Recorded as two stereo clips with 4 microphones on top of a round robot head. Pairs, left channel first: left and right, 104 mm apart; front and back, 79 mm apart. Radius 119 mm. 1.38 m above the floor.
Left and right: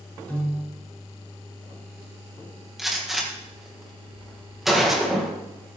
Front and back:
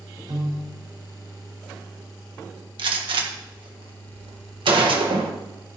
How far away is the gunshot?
About 1.7 m.